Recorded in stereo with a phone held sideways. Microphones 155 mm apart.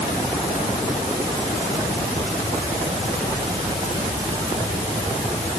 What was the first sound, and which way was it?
Only background noise.